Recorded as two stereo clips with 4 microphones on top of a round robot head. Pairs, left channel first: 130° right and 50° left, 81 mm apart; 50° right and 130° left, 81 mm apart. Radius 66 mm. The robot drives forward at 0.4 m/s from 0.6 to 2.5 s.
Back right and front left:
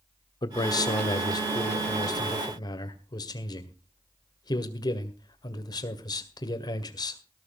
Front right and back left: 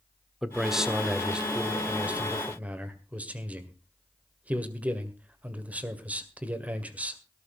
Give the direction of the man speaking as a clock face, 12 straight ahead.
5 o'clock.